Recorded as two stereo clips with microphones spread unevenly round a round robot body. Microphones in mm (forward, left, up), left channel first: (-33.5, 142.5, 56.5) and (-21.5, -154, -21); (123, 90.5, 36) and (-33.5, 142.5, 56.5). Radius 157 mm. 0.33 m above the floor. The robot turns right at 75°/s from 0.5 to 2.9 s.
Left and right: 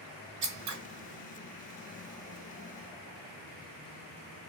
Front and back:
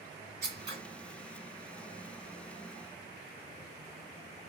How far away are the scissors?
About 1.6 m.